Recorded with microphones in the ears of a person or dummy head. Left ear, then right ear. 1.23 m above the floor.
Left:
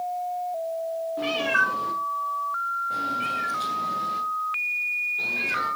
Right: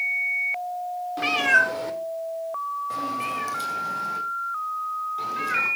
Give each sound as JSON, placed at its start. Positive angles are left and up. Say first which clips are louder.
{"t": 1.2, "sound": "a cat meowing", "louder": "right 4 dB", "side_deg": -70, "distance_m": 1.7}